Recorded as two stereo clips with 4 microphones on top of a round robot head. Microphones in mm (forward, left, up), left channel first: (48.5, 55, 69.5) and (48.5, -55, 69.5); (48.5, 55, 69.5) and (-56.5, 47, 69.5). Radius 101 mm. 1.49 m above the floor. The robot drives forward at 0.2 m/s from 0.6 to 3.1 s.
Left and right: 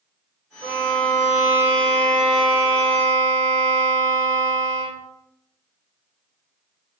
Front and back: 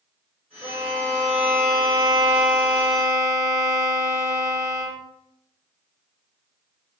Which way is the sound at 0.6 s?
155° right.